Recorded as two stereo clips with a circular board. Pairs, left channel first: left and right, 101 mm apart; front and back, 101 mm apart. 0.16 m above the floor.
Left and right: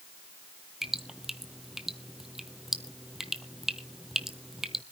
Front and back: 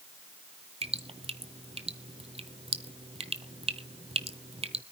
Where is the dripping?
175° right, 0.9 m.